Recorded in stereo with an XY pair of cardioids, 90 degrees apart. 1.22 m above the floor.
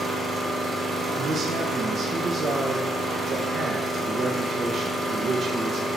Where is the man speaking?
60° right, 1.1 m.